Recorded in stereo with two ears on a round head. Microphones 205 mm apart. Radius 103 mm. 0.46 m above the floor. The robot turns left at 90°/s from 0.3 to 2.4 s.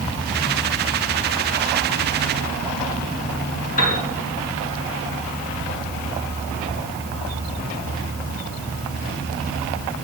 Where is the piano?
40° left (ahead or behind), 2.5 m.